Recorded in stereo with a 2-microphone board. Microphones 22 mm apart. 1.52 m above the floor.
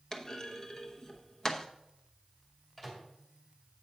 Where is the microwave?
20° left (ahead or behind), 2.5 m.